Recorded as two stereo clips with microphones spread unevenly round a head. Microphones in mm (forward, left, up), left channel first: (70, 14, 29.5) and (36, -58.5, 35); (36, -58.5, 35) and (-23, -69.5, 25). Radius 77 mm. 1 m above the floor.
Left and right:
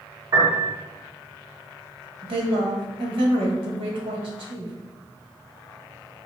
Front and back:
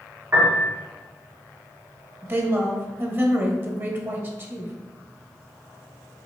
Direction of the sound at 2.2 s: 115° right.